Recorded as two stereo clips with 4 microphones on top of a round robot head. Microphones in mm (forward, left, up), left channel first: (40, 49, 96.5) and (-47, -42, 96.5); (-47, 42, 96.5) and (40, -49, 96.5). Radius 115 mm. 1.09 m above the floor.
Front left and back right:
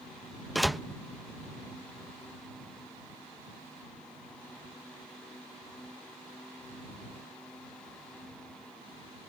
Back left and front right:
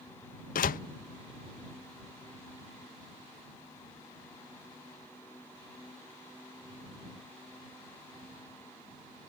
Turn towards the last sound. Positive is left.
turn(degrees=135)